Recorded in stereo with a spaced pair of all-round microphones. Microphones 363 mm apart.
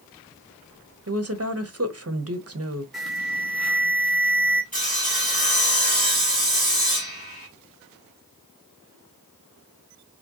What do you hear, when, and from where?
1.1 s a woman speaking: 40° right (ahead or behind), 0.9 m
2.9 s an alarm: centre (ahead or behind), 2 m
4.7 s sawing: 20° left (ahead or behind), 2 m